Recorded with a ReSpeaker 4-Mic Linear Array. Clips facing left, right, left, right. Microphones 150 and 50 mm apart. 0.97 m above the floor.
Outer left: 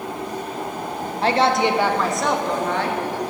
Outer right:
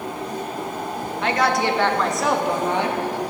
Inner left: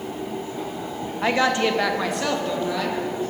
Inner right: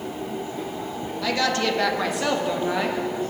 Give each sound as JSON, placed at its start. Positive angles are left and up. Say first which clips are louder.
{"t": 1.2, "sound": "a woman speaking", "louder": "outer left 3 dB, inner left 3 dB", "side_deg": 35, "distance_m": 1.1}